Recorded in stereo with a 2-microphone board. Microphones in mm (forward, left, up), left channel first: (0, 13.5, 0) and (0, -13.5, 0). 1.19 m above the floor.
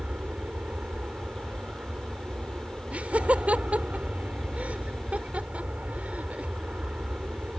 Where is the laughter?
60° right (ahead or behind).